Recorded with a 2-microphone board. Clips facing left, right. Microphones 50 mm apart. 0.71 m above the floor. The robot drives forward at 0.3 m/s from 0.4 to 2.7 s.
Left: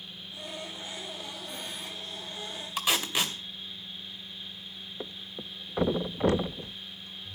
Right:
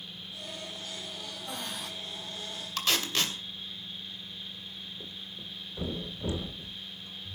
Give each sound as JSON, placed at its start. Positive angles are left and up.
{"t": 1.5, "sound": "breathing", "side_deg": -85, "distance_m": 3.0}
{"t": 2.8, "sound": "tape being pulled", "side_deg": 15, "distance_m": 2.5}
{"t": 5.0, "sound": "a thud", "side_deg": 65, "distance_m": 0.8}